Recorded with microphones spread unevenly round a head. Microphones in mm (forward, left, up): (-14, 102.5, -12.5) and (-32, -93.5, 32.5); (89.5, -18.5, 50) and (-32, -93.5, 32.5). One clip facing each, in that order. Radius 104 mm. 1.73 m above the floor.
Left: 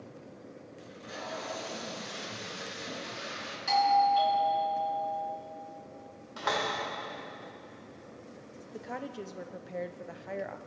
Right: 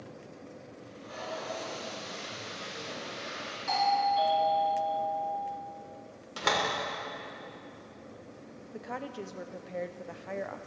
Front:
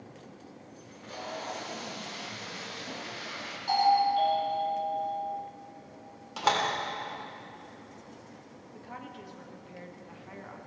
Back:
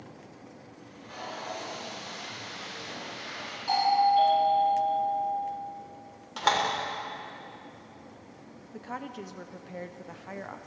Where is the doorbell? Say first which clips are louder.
Left 3 dB, back 1 dB; 125° left, 3.5 m.